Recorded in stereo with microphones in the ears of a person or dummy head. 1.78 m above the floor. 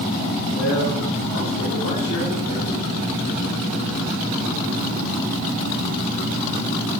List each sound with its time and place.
0.5 s a man speaking: 85° left, 4 m; by 2.7 s 70° left (ahead or behind), 3.5 m